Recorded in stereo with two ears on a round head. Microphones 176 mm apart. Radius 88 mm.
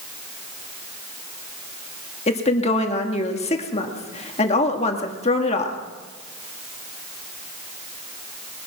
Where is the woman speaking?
30° left (ahead or behind), 1.6 m.